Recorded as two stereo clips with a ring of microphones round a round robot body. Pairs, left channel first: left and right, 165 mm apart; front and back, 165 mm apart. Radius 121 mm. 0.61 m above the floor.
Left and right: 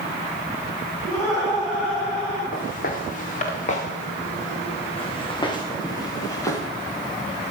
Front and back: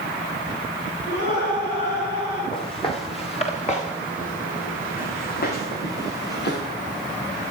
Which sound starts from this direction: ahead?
Laughter, at 1.0 s.